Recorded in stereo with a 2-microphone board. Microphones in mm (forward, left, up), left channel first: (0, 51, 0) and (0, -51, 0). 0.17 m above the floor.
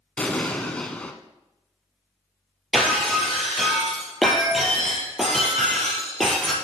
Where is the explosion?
10° left (ahead or behind), 1.0 m.